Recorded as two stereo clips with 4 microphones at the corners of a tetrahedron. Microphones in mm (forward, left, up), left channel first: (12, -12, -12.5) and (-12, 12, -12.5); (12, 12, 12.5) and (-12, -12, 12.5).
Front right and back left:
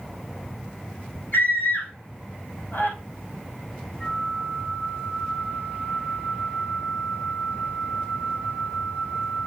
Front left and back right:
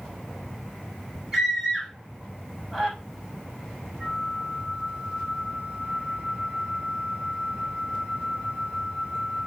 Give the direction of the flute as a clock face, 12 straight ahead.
3 o'clock.